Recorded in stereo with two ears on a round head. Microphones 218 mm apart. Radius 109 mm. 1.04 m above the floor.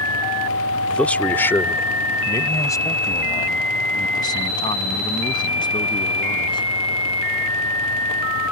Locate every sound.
0.9 s a man speaking: 5° left (ahead or behind); by 6.7 s 20° left (ahead or behind)